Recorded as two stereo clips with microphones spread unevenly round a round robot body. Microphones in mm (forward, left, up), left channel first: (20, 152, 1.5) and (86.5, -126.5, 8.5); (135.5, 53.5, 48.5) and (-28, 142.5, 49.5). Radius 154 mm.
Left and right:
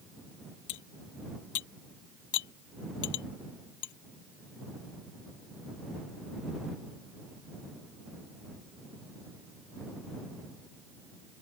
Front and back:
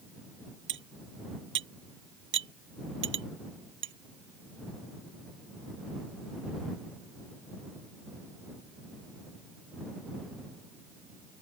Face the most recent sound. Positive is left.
turn(degrees=140)